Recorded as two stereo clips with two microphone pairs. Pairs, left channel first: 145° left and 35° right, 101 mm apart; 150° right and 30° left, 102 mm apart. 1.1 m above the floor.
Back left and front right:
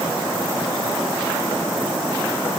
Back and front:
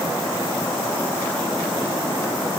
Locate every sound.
Only background noise.